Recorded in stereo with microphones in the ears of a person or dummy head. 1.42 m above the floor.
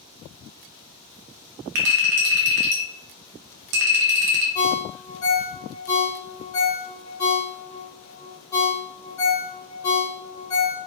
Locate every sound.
1.8 s a clink: 55° right (ahead or behind), 0.5 m
4.5 s a ringtone: 20° left (ahead or behind), 0.6 m